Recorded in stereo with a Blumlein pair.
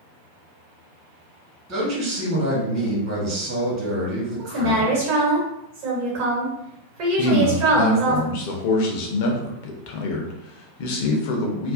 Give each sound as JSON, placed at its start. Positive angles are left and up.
{"t": 1.7, "sound": "a man speaking", "azimuth_deg": -35, "distance_m": 1.3}
{"t": 4.4, "sound": "a woman speaking", "azimuth_deg": -45, "distance_m": 1.2}
{"t": 7.2, "sound": "a man speaking", "azimuth_deg": 50, "distance_m": 0.7}